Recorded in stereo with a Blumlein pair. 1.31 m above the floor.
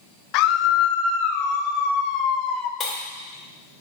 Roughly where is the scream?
Ahead left.